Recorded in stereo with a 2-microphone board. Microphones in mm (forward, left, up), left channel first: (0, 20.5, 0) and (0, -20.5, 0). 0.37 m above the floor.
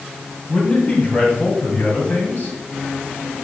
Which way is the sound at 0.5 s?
35° left (ahead or behind).